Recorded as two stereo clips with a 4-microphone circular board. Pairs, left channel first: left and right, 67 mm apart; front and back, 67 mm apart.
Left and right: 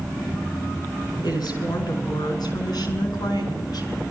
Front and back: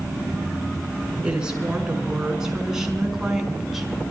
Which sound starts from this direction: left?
A woman speaking, at 1.2 s.